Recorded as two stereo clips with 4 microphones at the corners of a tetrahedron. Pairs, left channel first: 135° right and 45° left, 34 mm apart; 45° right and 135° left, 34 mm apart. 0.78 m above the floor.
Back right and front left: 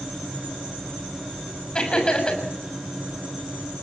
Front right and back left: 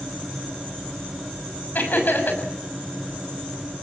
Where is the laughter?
70° right, 6 m.